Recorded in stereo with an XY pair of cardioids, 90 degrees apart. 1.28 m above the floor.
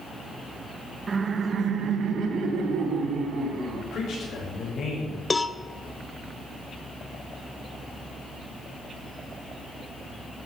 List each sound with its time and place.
1.1 s laughter: 40° right, 1.1 m; by 3.8 s 80° right, 4.5 m
3.9 s a man speaking: 65° left, 7.5 m
5.3 s a cowbell: 30° left, 0.7 m